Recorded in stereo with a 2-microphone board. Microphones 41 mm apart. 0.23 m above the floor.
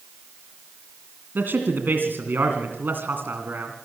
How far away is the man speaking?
About 2.5 m.